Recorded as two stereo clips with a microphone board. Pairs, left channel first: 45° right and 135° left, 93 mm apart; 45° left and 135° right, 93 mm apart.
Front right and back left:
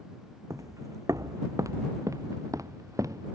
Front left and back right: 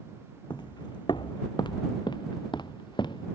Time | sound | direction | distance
0.5 | footsteps | 85° left | ?